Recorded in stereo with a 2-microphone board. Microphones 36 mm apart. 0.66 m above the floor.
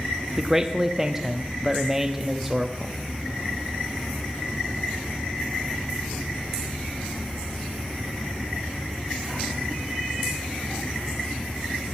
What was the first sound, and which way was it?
A man speaking, 10° right (ahead or behind).